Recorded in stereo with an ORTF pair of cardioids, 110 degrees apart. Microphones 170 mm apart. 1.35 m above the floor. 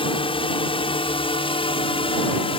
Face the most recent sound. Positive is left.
turn(degrees=35)